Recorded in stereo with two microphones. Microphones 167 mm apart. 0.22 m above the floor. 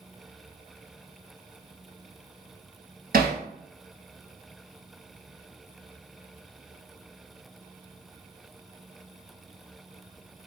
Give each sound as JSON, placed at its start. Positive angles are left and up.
{"t": 3.1, "sound": "hammering", "side_deg": -65, "distance_m": 1.2}